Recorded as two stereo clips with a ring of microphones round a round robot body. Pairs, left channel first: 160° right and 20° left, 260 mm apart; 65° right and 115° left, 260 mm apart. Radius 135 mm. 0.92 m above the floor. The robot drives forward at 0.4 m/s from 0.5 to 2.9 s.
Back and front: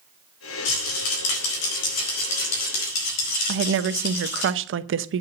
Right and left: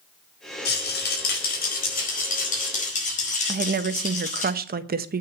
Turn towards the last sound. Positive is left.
turn(degrees=60)